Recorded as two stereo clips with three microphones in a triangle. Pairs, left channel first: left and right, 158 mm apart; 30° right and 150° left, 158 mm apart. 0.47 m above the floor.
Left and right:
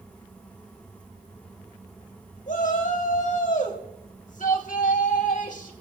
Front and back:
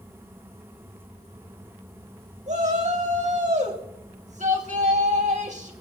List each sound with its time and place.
2.5 s a shout: 115° left, 3.5 m